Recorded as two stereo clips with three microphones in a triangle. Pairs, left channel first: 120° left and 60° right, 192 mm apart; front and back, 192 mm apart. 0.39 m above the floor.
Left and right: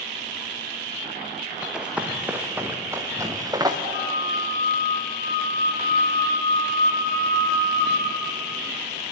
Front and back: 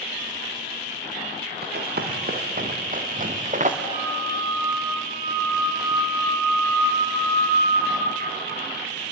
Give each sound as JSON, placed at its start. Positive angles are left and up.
{"t": 1.6, "sound": "running footsteps", "azimuth_deg": -145, "distance_m": 3.5}
{"t": 3.8, "sound": "a flute", "azimuth_deg": -125, "distance_m": 8.5}